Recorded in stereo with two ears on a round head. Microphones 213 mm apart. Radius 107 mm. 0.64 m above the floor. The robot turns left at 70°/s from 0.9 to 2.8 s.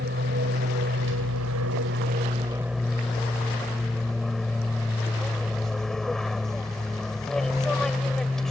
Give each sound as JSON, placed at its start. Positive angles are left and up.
{"t": 0.0, "sound": "an aircraft", "azimuth_deg": -50}